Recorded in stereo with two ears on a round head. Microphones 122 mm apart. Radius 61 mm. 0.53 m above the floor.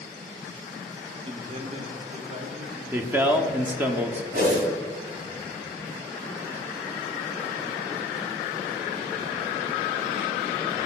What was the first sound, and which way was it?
A man speaking, 40° right (ahead or behind).